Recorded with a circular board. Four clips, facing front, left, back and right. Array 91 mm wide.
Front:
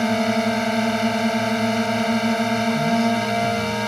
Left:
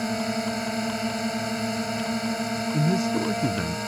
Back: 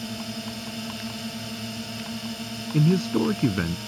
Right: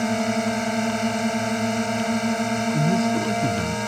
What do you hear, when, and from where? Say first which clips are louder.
0.0 s a drone: right 4 dB, front 14 dB; 20° right
2.7 s a man speaking: right 1 dB, front 3 dB; 170° left